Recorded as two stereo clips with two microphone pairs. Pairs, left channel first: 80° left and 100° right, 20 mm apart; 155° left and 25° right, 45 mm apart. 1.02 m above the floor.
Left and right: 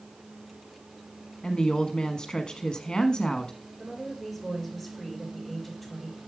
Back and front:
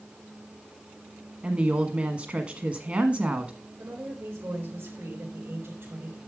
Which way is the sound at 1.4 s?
25° left.